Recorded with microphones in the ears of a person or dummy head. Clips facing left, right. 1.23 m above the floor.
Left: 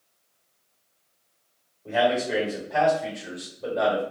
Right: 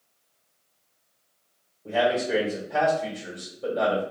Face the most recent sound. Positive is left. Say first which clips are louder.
# even
turn(degrees=-10)  # may be behind; listen again after turning